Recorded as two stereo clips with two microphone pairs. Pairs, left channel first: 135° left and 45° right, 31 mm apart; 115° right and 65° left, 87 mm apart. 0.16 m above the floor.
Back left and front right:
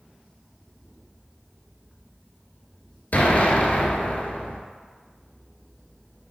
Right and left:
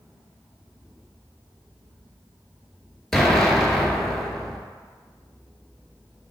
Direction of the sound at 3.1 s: 155° left.